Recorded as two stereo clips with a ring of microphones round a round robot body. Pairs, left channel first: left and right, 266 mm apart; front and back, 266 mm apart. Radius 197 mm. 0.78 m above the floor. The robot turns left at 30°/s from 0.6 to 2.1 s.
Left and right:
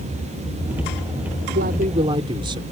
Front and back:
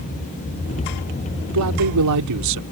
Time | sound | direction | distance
1.5 | a man speaking | 150° right | ?